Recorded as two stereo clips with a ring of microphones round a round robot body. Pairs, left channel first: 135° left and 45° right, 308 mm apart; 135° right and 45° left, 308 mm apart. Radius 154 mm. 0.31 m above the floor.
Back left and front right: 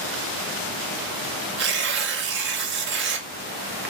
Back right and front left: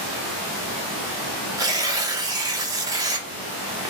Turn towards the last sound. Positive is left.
turn(degrees=-25)